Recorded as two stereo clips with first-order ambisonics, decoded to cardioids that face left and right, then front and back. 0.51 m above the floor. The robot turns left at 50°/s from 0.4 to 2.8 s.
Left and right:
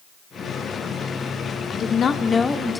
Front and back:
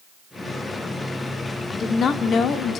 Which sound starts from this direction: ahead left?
A woman speaking, at 1.7 s.